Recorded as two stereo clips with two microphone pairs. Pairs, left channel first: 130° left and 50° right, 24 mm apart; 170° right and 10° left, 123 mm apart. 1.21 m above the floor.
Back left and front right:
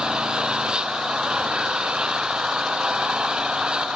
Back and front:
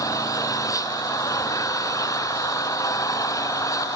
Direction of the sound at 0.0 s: 105° right.